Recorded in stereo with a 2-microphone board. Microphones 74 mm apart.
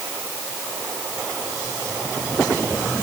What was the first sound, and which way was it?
Only background noise.